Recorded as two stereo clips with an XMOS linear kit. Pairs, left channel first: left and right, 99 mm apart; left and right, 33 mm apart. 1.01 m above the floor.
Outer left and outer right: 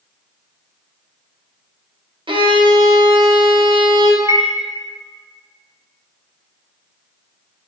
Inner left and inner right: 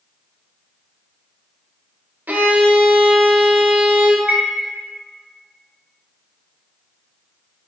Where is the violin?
60° right (ahead or behind), 0.5 m.